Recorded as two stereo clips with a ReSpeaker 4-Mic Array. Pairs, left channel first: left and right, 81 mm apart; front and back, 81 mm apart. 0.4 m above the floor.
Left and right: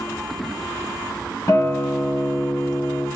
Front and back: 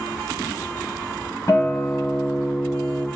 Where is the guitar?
50° left, 1.0 m.